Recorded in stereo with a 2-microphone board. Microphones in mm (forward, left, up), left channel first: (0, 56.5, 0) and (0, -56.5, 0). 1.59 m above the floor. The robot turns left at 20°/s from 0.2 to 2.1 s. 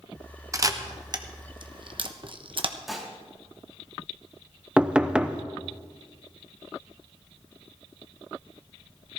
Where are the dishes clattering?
Centre (ahead or behind), 2.5 m.